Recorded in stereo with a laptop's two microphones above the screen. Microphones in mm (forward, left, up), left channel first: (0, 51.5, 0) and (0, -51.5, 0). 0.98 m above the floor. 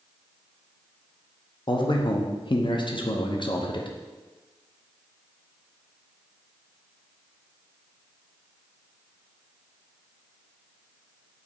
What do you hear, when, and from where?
1.7 s a man speaking: 50° left (ahead or behind), 0.5 m